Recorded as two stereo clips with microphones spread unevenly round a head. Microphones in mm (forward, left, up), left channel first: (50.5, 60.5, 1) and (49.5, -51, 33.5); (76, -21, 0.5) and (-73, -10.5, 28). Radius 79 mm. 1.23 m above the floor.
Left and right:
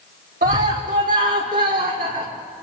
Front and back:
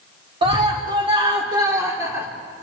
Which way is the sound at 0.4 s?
130° right.